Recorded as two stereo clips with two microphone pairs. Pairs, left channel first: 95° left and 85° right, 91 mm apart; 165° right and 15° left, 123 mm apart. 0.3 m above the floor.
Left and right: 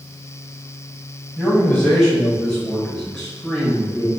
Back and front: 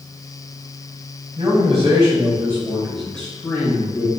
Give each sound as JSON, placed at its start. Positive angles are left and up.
{"t": 1.4, "sound": "a man speaking", "azimuth_deg": 10, "distance_m": 1.6}